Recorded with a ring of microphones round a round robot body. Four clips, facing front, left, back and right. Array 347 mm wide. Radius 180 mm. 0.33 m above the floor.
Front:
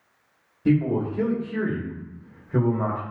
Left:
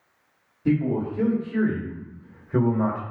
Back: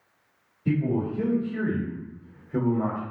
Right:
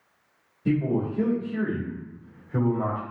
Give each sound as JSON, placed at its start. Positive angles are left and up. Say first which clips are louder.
{"t": 0.7, "sound": "a man speaking", "louder": "left 2 dB, front 4 dB", "azimuth_deg": 5, "distance_m": 1.8}